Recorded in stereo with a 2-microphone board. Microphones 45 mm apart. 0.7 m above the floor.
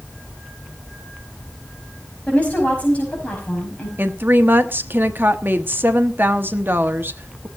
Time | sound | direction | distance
2.3 | a woman speaking | 30° left (ahead or behind) | 5.5 m
4.0 | a woman speaking | 50° right (ahead or behind) | 1.2 m